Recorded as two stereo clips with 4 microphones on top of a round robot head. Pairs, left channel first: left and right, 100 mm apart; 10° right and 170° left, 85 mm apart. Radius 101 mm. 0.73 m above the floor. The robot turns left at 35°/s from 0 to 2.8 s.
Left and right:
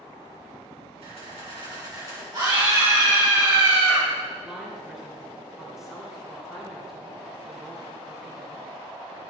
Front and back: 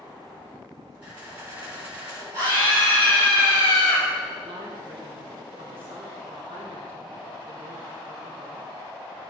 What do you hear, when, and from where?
1.0 s a camera shutter: 110° right, 5.5 m; by 2.2 s 150° right, 5.5 m
2.3 s a scream: 135° right, 5.5 m; by 4.0 s 150° right, 5.5 m
4.4 s a woman speaking: 175° right, 3 m